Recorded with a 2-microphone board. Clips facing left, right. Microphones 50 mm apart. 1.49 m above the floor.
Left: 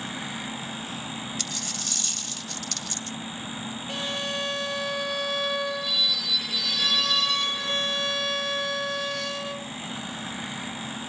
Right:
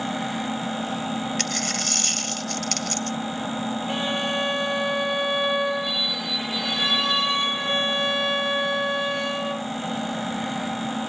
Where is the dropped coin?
60° right (ahead or behind).